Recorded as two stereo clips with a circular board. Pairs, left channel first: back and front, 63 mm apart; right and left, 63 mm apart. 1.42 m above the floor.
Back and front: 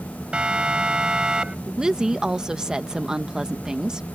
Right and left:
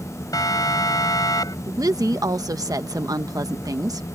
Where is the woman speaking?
80° left.